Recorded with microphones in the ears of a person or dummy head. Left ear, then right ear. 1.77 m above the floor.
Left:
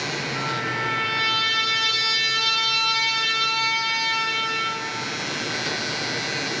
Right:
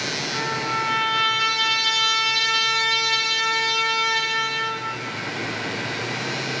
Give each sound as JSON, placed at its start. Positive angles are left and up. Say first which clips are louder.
{"t": 0.3, "sound": "a trumpet", "louder": "right 2 dB", "side_deg": -25, "distance_m": 0.6}